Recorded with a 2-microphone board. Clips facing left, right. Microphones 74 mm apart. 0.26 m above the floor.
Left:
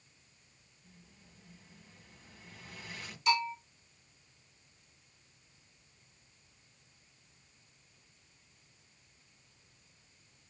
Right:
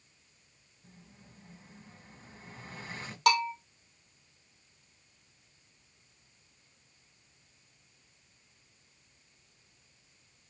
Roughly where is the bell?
Right.